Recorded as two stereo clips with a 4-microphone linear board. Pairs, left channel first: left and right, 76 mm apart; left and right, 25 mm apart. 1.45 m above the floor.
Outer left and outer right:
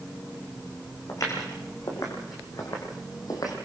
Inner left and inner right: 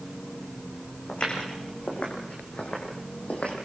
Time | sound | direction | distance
1.1 | footsteps | 50° left (ahead or behind) | 7 m